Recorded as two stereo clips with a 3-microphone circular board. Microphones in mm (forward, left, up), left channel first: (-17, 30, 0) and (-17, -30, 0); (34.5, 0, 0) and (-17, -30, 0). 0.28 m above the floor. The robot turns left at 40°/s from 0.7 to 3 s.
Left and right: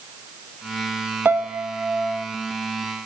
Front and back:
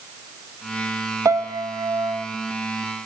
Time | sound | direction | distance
1.2 | a piano | 140° right | 1.2 m